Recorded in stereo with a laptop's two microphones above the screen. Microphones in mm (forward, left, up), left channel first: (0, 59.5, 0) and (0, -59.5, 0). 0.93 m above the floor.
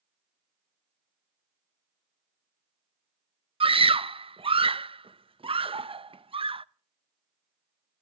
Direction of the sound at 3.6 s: 50° right (ahead or behind).